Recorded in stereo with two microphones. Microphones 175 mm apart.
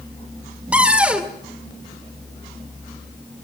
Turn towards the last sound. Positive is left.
turn(degrees=-5)  # may be behind; listen again after turning